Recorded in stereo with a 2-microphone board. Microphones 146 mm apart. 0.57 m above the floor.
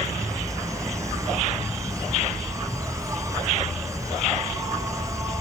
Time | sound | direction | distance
0.0 | an insect | 20° right (ahead or behind) | 1.1 m